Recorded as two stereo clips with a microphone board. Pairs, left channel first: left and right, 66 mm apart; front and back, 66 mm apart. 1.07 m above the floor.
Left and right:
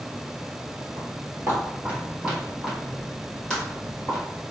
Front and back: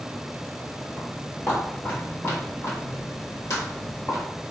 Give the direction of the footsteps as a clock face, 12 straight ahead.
2 o'clock.